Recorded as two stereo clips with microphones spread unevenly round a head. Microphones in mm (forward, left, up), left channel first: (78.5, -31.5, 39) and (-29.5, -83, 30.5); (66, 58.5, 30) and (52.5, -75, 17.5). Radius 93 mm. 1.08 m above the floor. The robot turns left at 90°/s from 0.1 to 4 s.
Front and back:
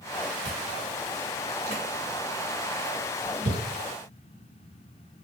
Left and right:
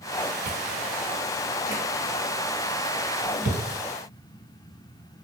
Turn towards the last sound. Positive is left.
turn(degrees=-60)